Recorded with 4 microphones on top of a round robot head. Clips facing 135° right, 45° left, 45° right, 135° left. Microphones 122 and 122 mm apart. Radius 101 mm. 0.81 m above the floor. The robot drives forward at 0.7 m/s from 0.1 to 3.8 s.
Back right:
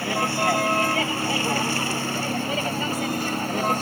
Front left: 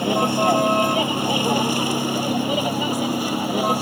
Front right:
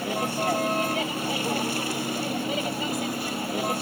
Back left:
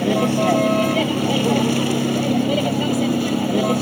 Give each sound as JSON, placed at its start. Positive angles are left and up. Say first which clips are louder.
{"t": 0.0, "sound": "a vehicle", "louder": "front left 5 dB, back left 10 dB", "azimuth_deg": 115}